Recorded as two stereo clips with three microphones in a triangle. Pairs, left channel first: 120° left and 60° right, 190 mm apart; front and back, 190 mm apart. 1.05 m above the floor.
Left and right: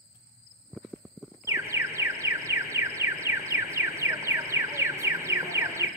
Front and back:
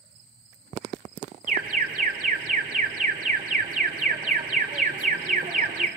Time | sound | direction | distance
1.5 | an alarm | 135° right | 2 m